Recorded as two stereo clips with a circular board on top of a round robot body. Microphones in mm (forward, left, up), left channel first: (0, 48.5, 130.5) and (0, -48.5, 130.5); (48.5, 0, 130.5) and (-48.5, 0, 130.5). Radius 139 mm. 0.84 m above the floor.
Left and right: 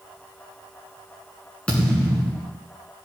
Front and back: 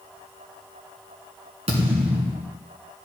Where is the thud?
165° left, 1.8 m.